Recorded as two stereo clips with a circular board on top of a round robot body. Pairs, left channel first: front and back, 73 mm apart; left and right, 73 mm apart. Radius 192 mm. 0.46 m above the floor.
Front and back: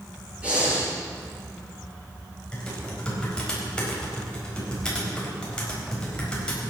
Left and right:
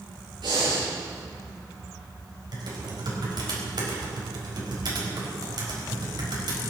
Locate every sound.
0.4 s breathing: 105° right, 7 m
2.5 s typing on a keyboard: 75° right, 4.5 m